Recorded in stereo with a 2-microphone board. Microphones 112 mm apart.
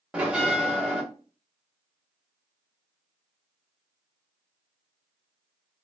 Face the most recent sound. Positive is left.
turn(degrees=-10)  # may be behind; listen again after turning